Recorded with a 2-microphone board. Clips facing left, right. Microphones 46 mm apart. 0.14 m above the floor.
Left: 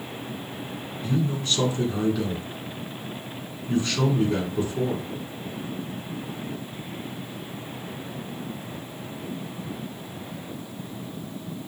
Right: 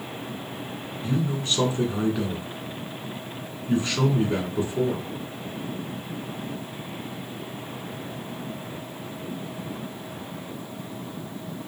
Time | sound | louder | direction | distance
1.0 | a man speaking | left 1 dB | 30° right (ahead or behind) | 1.2 m